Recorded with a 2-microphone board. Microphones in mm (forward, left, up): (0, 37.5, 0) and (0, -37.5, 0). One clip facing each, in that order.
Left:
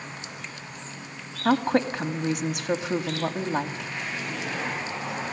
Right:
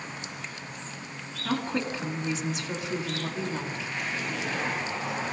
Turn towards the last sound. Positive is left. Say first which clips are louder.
# left 7 dB
turn(degrees=70)  # may be behind; listen again after turning